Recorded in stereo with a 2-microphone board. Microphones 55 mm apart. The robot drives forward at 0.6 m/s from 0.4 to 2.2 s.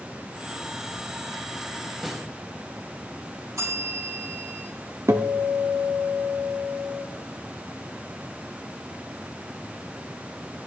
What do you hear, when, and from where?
2.0 s a snare drum: centre (ahead or behind), 1.9 m
3.6 s a bell: 65° right (ahead or behind), 5.5 m
5.1 s a guitar: 60° right (ahead or behind), 1.0 m